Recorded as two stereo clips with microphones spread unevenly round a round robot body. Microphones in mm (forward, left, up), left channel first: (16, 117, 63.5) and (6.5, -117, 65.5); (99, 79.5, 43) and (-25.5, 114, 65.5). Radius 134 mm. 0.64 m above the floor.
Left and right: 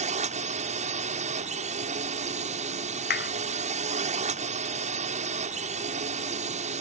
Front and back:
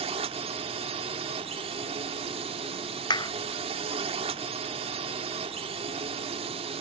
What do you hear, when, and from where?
0.0 s a drone: 150° right
3.1 s a clap: 40° left